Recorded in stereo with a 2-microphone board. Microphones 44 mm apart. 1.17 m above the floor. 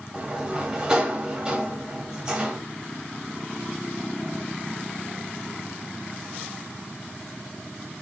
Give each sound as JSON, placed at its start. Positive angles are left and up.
{"t": 0.1, "sound": "a sliding door", "side_deg": -15, "distance_m": 1.5}